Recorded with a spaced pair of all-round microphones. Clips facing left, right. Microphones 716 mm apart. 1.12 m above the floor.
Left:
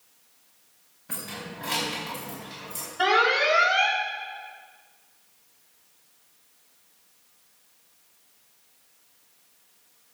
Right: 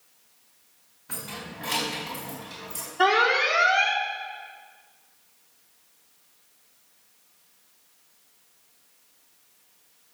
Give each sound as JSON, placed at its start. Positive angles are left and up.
{"t": 1.1, "sound": "keys jangling", "side_deg": 10, "distance_m": 4.0}
{"t": 3.0, "sound": "an alarm", "side_deg": 15, "distance_m": 2.5}